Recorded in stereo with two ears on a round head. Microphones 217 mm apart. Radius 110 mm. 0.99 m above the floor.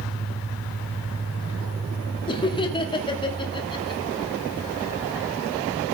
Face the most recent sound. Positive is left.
turn(degrees=20)  # may be behind; listen again after turning